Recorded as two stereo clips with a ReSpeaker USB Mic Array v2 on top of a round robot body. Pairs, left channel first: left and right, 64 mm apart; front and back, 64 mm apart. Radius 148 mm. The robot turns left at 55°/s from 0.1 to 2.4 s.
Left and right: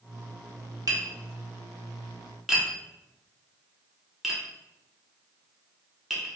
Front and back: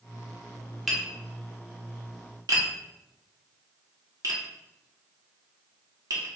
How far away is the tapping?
About 1.8 m.